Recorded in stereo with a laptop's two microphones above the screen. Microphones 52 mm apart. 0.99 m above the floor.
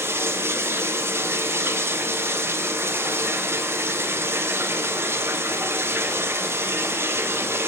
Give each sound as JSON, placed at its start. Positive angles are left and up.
{"t": 0.0, "sound": "running water", "side_deg": -50, "distance_m": 0.8}